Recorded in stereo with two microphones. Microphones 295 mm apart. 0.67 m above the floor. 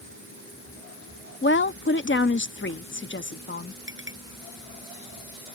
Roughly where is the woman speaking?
Left.